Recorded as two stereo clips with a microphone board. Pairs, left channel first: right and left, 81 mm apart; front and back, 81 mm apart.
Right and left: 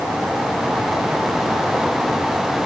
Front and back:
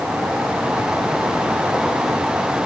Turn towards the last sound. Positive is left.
No sound to turn to.